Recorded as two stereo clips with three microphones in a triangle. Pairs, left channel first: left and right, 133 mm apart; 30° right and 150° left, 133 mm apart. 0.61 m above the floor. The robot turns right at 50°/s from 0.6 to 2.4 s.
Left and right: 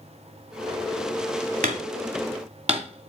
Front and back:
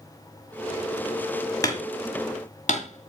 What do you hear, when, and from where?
1.6 s hammering: 95° right, 1.8 m; by 3.1 s 55° right, 1.8 m